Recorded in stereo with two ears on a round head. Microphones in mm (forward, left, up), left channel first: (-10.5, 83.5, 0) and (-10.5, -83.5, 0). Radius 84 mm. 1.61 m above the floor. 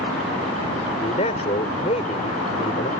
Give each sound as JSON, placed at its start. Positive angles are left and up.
{"t": 1.0, "sound": "a man speaking", "side_deg": 35}